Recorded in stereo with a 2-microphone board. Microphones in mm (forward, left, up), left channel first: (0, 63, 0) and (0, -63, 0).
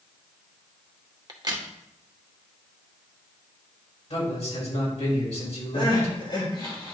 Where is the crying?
45° left (ahead or behind), 3.5 m.